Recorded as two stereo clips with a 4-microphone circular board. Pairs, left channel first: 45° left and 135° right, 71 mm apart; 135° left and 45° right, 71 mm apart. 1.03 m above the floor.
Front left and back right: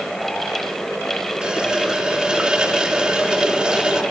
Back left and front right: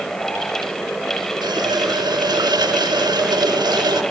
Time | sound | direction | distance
1.4 | a running tap | 55° right | 1.8 m